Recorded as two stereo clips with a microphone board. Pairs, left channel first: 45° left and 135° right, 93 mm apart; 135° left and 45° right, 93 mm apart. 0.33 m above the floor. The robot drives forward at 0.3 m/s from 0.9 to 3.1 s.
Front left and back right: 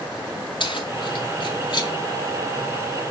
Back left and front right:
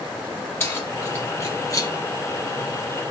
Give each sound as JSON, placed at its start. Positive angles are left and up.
{"t": 0.6, "sound": "keys jangling", "azimuth_deg": 70, "distance_m": 1.9}